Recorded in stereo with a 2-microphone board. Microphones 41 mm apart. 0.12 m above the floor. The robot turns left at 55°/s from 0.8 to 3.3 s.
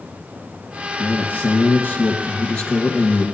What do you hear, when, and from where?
1.0 s a man speaking: 120° left, 1.5 m; by 3.3 s 5° right, 1.5 m